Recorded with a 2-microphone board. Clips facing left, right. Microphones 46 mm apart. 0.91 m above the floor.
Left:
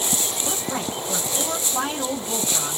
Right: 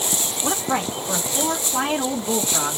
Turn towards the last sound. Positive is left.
turn(degrees=-40)  # may be behind; listen again after turning